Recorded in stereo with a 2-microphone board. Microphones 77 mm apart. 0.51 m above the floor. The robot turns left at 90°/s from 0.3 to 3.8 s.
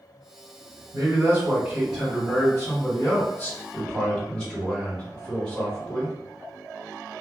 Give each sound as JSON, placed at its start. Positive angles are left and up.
{"t": 0.9, "sound": "a man speaking", "azimuth_deg": -80, "distance_m": 1.7}